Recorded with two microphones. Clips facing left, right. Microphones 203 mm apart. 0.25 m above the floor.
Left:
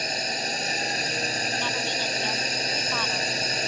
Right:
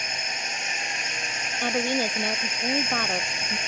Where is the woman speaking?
50° right (ahead or behind).